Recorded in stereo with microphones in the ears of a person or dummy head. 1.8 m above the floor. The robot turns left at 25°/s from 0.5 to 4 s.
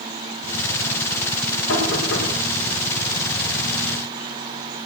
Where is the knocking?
80° left, 7 m.